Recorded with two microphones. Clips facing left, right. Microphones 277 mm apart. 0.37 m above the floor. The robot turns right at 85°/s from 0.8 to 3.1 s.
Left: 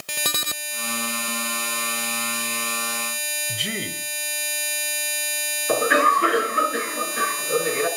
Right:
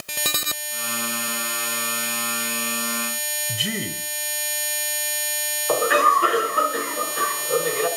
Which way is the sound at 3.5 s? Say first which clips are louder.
Right 2 dB; 5° right (ahead or behind).